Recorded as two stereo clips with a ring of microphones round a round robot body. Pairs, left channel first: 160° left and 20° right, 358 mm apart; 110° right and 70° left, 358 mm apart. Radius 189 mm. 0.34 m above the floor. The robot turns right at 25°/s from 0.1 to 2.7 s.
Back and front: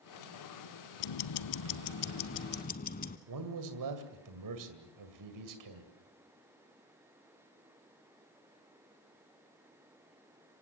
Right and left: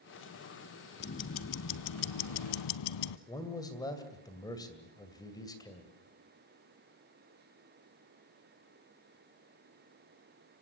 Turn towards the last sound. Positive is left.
turn(degrees=-35)